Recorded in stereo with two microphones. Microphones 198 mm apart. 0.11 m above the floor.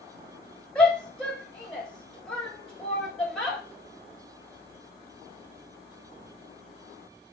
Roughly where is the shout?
Centre.